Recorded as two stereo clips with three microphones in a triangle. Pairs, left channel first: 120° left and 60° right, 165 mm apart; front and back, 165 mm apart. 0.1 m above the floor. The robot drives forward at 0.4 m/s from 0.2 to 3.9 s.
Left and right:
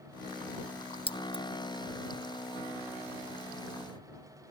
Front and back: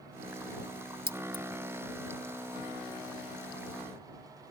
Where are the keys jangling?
170° left; by 1.4 s 175° left.